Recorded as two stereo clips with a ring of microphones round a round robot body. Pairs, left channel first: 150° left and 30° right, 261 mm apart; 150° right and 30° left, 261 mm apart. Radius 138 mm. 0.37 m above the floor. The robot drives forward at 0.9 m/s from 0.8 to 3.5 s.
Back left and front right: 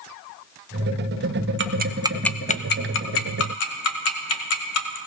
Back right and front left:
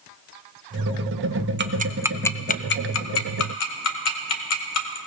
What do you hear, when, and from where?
1.6 s ticking: 5° right, 0.8 m; by 5.0 s straight behind, 1.3 m